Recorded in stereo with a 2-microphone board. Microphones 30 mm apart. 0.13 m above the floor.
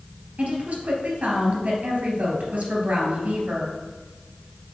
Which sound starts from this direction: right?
A woman speaking, at 0.4 s.